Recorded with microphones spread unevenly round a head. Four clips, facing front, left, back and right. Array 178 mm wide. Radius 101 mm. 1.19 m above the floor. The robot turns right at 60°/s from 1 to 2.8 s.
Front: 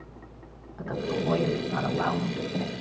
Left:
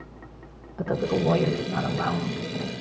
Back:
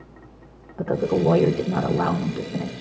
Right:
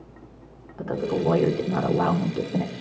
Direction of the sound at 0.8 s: 165° left.